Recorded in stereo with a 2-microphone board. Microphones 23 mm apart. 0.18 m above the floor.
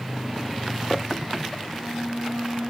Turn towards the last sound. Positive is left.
turn(degrees=60)  # may be behind; listen again after turning